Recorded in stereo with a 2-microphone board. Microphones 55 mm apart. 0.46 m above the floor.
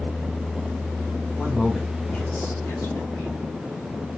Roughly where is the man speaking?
Centre.